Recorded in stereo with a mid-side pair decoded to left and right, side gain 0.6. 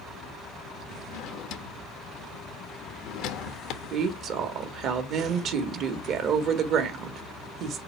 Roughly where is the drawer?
Left.